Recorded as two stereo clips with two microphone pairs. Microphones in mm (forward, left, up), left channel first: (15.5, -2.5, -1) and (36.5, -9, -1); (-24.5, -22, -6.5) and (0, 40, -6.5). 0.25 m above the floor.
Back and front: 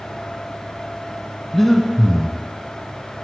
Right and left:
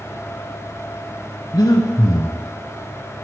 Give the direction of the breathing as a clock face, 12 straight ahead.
4 o'clock.